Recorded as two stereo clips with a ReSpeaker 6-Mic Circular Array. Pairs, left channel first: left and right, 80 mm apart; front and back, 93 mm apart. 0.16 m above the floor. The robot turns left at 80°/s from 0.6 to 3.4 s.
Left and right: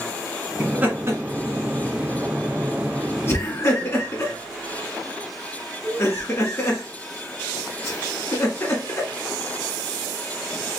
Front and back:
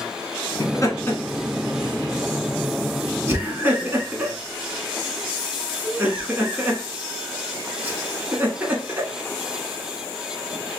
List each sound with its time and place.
0.6 s laughter: 15° right, 1.4 m; by 9.1 s 120° left, 1.4 m